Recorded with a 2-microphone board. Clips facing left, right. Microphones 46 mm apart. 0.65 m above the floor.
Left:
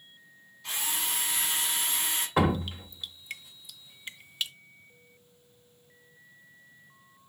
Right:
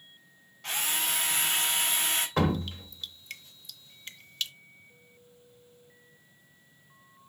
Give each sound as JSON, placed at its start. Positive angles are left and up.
{"t": 0.6, "sound": "a drill", "side_deg": -75, "distance_m": 3.5}
{"t": 2.4, "sound": "dripping", "side_deg": 15, "distance_m": 0.7}